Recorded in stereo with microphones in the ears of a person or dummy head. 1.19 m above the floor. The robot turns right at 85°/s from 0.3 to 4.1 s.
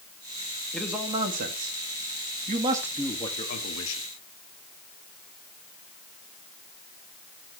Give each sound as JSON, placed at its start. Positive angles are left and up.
{"t": 0.7, "sound": "a man speaking", "side_deg": 10, "distance_m": 1.5}